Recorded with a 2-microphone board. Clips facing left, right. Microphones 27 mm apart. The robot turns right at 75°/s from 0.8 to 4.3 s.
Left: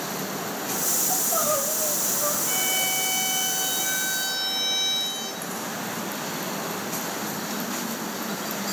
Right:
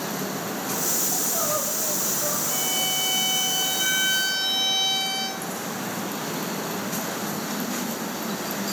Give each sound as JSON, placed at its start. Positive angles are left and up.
{"t": 1.1, "sound": "crying", "azimuth_deg": 80, "distance_m": 3.0}
{"t": 2.5, "sound": "a violin", "azimuth_deg": 130, "distance_m": 2.0}